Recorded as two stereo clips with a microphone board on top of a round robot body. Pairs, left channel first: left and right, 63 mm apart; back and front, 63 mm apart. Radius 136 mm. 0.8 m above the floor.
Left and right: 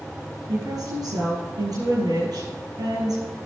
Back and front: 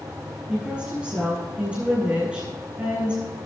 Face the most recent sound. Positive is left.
turn(degrees=-75)